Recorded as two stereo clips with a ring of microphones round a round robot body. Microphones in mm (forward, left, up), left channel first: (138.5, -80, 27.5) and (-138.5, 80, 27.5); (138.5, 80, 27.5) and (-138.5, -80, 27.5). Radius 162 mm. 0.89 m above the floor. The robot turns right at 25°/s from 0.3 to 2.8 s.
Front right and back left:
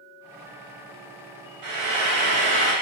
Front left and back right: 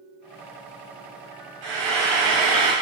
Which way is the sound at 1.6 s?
Straight behind.